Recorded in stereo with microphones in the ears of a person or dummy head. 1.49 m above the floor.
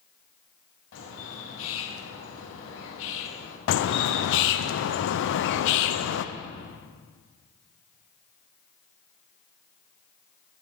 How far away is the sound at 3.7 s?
About 0.6 m.